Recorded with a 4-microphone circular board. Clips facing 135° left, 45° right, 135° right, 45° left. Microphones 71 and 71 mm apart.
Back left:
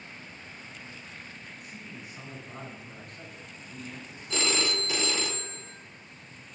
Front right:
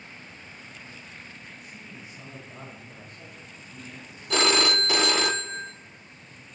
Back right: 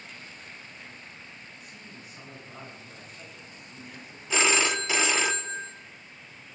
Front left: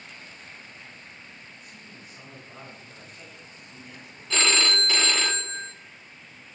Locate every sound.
1.6 s a man speaking: 140° left, 9.5 m
4.3 s a phone ringing: 55° right, 0.6 m